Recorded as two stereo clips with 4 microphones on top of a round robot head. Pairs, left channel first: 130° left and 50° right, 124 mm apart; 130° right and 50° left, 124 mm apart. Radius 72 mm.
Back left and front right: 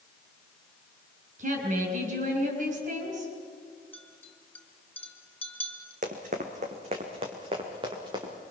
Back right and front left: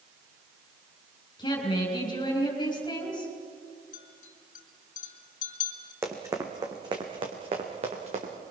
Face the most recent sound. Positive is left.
turn(degrees=10)